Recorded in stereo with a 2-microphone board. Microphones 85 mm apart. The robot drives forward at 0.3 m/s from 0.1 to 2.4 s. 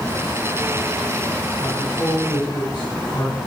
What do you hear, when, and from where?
1.6 s a man speaking: 55° left (ahead or behind), 3 m; by 3.4 s 50° left (ahead or behind), 3 m